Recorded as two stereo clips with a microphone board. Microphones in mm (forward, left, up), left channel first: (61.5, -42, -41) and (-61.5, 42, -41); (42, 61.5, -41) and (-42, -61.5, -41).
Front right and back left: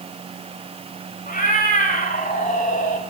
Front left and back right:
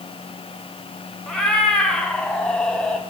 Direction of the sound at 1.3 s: 30° right.